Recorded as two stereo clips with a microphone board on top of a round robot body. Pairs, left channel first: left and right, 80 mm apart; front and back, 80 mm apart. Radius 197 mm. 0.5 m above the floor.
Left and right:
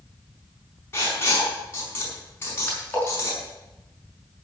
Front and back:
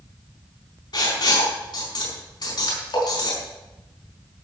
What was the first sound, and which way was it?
Writing, 30° left.